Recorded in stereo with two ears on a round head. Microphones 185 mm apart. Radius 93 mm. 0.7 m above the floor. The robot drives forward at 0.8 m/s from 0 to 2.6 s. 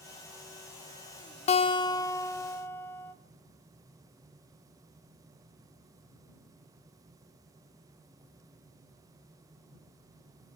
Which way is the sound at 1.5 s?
30° left (ahead or behind).